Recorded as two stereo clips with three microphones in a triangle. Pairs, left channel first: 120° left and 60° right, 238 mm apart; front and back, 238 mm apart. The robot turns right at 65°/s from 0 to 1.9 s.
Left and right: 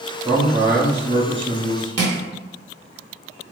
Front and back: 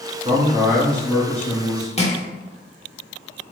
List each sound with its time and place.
0.2 s a man speaking: 125° right, 1.0 m; by 1.9 s 20° right, 1.0 m
2.0 s crushing: 65° right, 0.8 m